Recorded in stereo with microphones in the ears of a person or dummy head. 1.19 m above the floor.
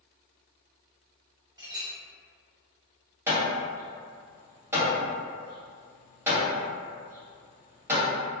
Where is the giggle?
I don't hear a giggle.